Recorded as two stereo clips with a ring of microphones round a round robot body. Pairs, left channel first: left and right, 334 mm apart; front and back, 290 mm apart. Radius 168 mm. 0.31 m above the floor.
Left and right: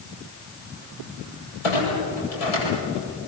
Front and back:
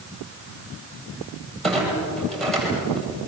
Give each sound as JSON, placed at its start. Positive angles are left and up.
{"t": 1.6, "sound": "a clunk", "azimuth_deg": 90, "distance_m": 9.5}